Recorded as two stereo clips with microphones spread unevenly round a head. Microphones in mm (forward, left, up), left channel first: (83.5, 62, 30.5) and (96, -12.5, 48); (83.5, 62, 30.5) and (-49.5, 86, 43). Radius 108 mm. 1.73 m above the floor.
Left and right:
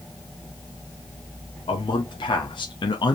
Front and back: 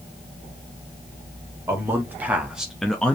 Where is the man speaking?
100° left, 1.3 m; by 3.1 s 70° left, 0.7 m.